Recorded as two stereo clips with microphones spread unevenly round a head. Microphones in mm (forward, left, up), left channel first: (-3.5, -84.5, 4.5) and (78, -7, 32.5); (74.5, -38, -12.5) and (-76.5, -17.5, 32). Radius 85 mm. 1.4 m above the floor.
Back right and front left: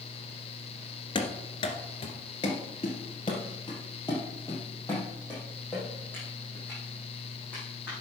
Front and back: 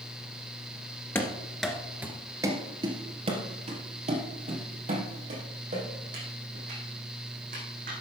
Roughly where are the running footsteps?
Right.